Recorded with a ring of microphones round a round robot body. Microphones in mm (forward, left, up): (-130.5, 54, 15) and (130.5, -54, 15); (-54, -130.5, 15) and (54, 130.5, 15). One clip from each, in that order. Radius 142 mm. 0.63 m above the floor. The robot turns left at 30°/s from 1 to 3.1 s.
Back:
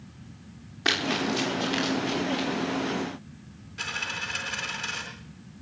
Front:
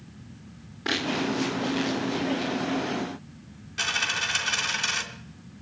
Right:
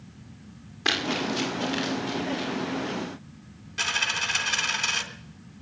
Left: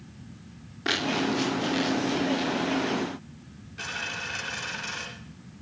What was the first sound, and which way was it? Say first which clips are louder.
Running footsteps: back 2 dB, right 1 dB; 165° right.